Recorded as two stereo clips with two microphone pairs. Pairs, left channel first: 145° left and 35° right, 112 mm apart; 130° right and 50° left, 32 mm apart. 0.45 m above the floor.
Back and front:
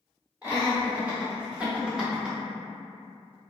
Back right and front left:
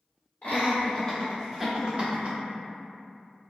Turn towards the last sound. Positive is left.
turn(degrees=45)